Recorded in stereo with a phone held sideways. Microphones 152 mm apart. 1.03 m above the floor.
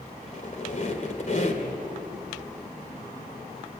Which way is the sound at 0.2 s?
55° left (ahead or behind).